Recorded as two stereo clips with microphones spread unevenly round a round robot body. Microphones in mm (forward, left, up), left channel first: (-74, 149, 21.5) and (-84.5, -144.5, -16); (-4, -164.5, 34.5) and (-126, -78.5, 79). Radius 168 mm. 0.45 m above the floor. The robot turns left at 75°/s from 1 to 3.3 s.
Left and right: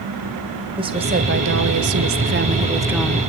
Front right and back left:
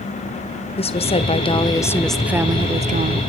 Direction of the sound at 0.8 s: 25° right.